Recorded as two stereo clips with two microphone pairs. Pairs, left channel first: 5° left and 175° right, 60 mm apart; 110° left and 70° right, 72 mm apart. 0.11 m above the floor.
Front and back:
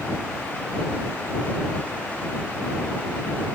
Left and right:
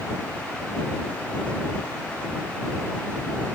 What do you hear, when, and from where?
Only background noise.